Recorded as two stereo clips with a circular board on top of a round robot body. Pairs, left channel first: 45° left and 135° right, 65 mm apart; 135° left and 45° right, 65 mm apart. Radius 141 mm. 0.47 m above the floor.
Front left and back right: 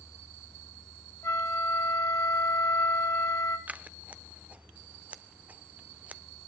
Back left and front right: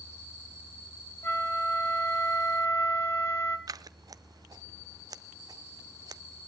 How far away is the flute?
About 2.5 m.